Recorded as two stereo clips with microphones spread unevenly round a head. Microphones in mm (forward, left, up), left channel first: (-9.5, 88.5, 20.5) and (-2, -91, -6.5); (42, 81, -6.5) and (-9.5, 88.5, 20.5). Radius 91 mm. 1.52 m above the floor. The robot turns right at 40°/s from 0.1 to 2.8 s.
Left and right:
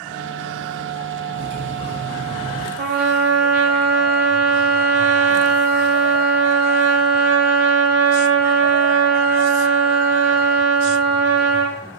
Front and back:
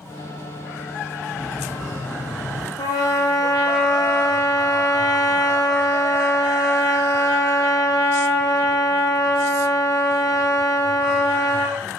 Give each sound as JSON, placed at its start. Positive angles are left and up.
{"t": 1.3, "sound": "cutlery clinking", "azimuth_deg": -70, "distance_m": 4.0}
{"t": 2.8, "sound": "a trumpet", "azimuth_deg": -45, "distance_m": 1.9}